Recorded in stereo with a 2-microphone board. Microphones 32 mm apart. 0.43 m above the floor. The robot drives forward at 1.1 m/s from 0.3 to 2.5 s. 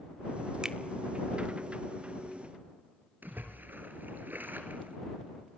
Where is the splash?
85° right, 3 m.